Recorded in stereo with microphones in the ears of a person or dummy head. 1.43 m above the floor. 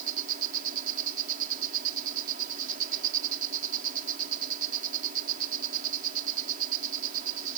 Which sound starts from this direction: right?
An insect, at 0.0 s.